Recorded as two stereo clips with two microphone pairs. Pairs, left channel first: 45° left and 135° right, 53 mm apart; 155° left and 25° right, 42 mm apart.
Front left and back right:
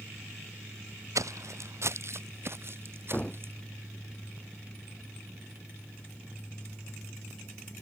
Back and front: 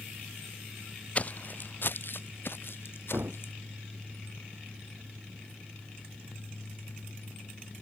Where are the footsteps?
150° right; by 3.5 s straight behind.